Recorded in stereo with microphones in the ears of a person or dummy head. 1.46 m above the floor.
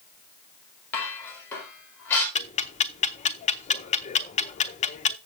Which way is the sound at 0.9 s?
10° left (ahead or behind).